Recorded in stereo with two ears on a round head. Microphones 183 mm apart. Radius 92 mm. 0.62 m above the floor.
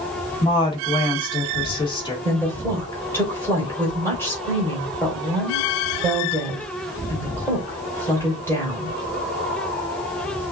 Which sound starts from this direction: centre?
A woman speaking, at 2.2 s.